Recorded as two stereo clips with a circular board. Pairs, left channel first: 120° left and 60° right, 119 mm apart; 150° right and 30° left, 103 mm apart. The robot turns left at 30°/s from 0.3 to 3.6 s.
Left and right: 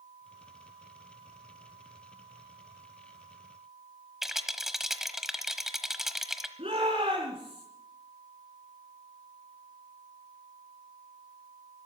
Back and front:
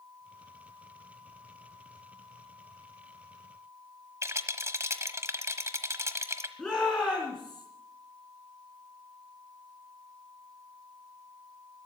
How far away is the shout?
About 3 m.